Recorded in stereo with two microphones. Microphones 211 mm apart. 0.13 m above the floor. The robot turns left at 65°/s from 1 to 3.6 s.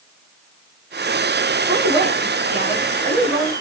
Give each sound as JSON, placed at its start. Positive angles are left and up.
{"t": 1.7, "sound": "a woman speaking", "azimuth_deg": -60, "distance_m": 1.3}